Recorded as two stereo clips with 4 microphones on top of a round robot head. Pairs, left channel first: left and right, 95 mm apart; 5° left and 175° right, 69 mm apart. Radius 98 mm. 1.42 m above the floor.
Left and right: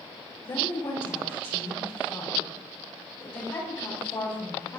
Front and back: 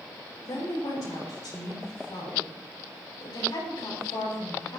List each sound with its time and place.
0.4 s a woman speaking: 40° left, 5.5 m